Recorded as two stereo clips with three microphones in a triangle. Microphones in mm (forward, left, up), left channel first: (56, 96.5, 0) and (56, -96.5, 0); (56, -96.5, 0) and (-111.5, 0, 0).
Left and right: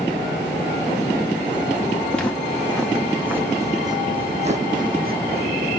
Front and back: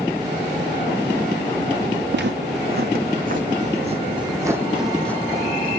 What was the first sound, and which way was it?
Footsteps, 175° left.